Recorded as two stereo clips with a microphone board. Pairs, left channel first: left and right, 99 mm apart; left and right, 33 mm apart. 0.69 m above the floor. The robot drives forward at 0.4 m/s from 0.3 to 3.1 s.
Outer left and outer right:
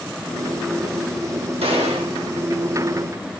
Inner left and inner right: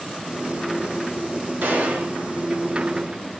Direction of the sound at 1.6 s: 80° right.